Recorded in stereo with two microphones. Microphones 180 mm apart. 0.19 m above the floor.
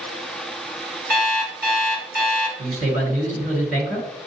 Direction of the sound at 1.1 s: 55° right (ahead or behind).